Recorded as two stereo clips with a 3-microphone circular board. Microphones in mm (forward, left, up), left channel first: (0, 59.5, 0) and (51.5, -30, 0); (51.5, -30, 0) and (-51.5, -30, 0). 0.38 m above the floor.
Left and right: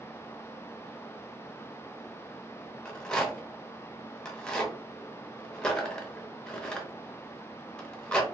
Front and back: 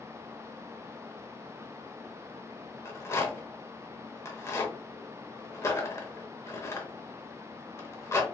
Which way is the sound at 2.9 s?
45° left.